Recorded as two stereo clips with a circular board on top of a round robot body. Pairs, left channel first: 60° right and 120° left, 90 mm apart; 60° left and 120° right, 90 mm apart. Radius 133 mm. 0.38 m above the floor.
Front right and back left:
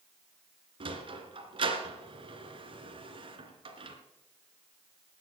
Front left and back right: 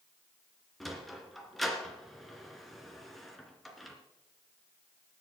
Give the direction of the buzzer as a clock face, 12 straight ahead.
No buzzer in this recording.